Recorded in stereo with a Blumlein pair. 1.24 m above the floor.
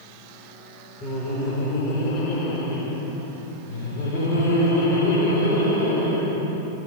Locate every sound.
1.0 s laughter: 25° left, 4 m; by 6.6 s 55° left, 7.5 m